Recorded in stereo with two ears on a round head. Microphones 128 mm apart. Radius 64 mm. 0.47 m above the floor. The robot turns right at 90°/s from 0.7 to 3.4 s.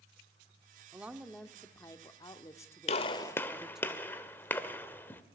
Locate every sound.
0.9 s a woman speaking: 15° right (ahead or behind), 1.2 m; by 3.9 s 5° right (ahead or behind), 1.2 m
2.9 s a gunshot: 50° left (ahead or behind), 1.6 m; by 5.2 s 15° left (ahead or behind), 1.6 m